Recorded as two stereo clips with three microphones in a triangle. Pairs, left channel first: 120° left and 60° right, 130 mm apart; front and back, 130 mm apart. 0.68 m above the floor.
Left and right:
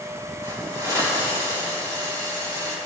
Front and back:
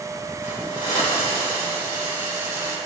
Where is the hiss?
Straight ahead, 3.5 m.